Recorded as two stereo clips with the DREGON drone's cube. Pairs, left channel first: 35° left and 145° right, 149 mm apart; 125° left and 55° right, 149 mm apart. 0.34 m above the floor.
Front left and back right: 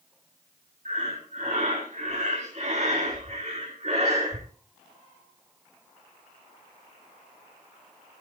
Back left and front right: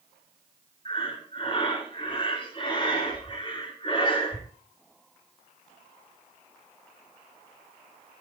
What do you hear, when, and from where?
0.8 s breathing: straight behind, 4.5 m